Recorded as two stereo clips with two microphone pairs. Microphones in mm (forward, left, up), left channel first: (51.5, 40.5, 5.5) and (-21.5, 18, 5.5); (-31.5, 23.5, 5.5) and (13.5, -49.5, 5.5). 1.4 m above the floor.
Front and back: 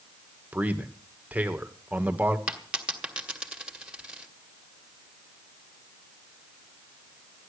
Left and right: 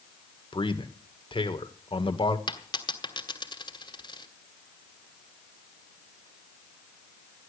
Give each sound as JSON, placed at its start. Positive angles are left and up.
{"t": 0.5, "sound": "a man speaking", "azimuth_deg": 125, "distance_m": 1.7}
{"t": 2.5, "sound": "a dropped coin", "azimuth_deg": 120, "distance_m": 1.9}